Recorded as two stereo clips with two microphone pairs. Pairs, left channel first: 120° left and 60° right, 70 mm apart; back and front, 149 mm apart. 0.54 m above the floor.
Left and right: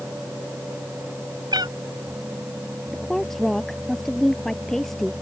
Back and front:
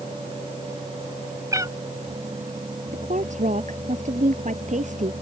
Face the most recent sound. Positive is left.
turn(degrees=35)